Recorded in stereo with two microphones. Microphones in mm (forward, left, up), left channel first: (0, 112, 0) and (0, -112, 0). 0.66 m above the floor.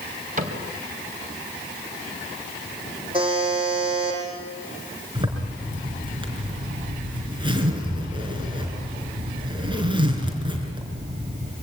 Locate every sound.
0.4 s a cupboard door: 35° right (ahead or behind), 3 m
3.1 s a buzzer: 20° right (ahead or behind), 8.5 m
5.2 s a zipper: 20° right (ahead or behind), 4 m